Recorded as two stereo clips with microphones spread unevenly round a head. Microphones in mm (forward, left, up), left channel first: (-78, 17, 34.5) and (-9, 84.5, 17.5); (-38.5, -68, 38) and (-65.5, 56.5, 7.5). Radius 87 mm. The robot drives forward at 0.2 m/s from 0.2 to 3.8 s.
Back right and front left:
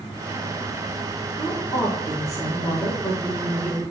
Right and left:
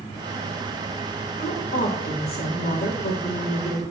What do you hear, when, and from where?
1.4 s a woman speaking: 60° right, 1.8 m; by 3.8 s 75° right, 1.6 m